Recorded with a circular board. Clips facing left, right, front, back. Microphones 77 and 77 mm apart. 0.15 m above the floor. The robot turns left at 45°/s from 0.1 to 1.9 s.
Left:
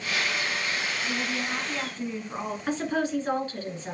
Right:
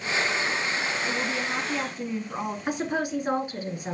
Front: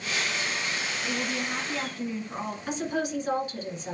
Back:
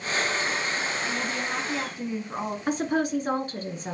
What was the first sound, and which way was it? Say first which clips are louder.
A woman speaking: right 2 dB, back 1 dB; 120° right.